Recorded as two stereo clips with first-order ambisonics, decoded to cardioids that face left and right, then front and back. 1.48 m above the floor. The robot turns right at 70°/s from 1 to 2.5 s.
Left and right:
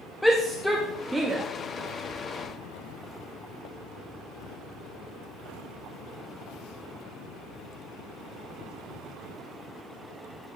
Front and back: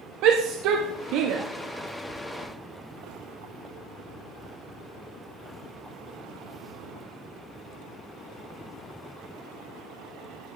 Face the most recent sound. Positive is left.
turn(degrees=25)